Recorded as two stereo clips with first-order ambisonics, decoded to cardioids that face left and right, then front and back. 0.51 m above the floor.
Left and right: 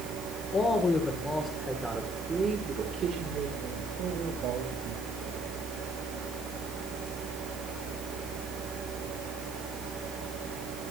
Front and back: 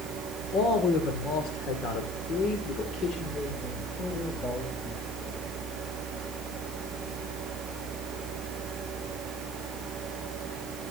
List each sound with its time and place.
0.5 s a man speaking: 30° left, 2 m; by 5.4 s 70° right, 3.5 m